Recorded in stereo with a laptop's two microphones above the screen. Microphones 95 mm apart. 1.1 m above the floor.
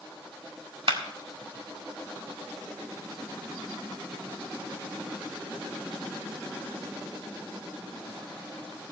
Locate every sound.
0.9 s a clap: 65° right (ahead or behind), 1.7 m